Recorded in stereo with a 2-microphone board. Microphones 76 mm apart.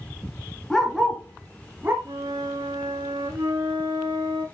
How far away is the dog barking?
About 1.6 m.